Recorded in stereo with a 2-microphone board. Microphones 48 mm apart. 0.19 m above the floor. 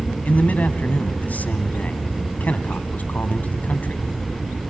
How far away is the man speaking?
About 1.3 m.